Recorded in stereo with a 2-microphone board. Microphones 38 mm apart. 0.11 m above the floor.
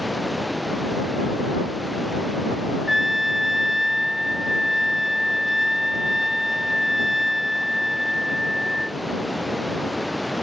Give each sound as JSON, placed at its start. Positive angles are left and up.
{"t": 0.0, "sound": "running water", "side_deg": 0}
{"t": 2.9, "sound": "a trumpet", "side_deg": -5}